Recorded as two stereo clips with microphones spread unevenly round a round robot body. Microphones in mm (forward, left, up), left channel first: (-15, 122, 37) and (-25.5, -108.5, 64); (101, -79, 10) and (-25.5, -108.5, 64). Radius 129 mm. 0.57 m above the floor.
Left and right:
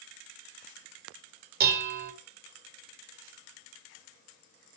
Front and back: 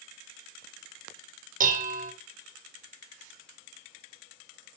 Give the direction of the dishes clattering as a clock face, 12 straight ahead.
5 o'clock.